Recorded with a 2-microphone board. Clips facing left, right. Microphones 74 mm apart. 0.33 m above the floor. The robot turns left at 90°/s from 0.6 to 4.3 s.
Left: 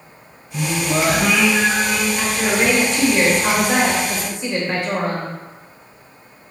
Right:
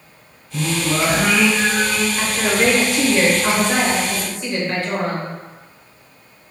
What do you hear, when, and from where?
0.5 s singing: 85° right, 1.9 m; by 2.1 s 145° left, 1.9 m
2.2 s a woman speaking: 20° right (ahead or behind), 0.9 m; by 5.3 s 20° left (ahead or behind), 0.9 m